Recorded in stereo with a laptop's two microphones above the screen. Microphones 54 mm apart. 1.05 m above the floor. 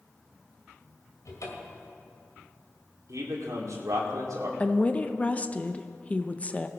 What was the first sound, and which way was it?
A cupboard door, 75° left (ahead or behind).